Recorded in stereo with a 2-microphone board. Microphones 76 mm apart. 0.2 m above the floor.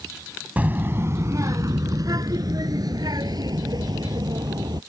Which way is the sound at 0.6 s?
20° right (ahead or behind).